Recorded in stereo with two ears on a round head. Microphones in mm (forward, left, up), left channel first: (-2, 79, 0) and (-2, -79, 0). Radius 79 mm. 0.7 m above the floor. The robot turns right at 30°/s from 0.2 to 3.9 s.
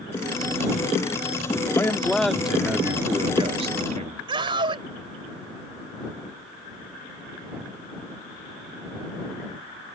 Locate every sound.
1.8 s a man speaking: 165° left; by 4.2 s 135° right
4.3 s a scream: 30° right (ahead or behind)